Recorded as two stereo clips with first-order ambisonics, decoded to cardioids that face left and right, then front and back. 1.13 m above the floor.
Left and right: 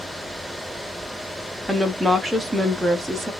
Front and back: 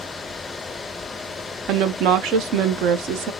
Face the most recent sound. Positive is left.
turn(degrees=-175)